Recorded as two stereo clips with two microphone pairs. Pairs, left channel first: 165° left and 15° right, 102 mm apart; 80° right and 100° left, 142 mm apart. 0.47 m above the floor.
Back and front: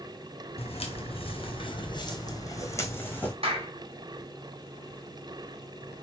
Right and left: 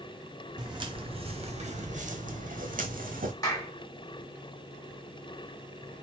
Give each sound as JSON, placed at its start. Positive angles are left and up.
{"t": 0.6, "sound": "footsteps", "azimuth_deg": 160, "distance_m": 1.4}
{"t": 3.4, "sound": "a clap", "azimuth_deg": -15, "distance_m": 1.8}